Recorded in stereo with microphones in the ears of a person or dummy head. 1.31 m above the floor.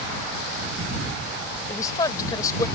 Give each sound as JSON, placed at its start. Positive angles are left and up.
{"t": 1.7, "sound": "a woman speaking", "side_deg": 20}